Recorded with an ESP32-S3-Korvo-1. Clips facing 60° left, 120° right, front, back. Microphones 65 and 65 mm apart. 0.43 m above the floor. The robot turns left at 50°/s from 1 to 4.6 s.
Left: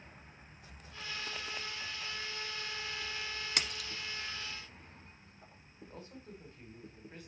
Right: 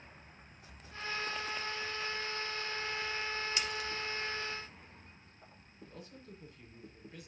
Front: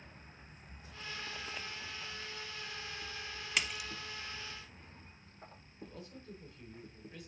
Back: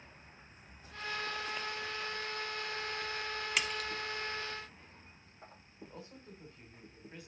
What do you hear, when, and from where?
3.6 s a splash: 90° left, 0.7 m; by 3.9 s 75° left, 0.7 m
5.8 s a man speaking: 115° left, 2.5 m